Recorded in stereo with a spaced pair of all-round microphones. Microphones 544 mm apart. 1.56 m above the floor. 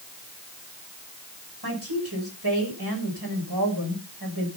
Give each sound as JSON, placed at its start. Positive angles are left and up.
{"t": 1.6, "sound": "a woman speaking", "side_deg": -40, "distance_m": 6.5}